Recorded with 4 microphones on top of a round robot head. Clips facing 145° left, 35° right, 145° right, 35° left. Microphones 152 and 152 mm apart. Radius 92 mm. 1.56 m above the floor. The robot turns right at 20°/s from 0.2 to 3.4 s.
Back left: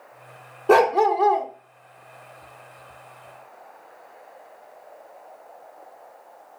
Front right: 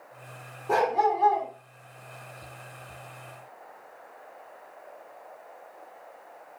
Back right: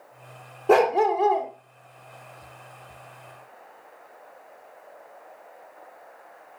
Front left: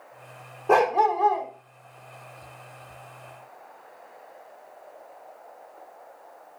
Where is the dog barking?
165° left, 1.9 m; by 1.5 s straight behind, 1.9 m.